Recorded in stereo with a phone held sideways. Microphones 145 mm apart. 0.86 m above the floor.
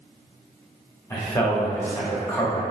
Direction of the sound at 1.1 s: 15° left (ahead or behind).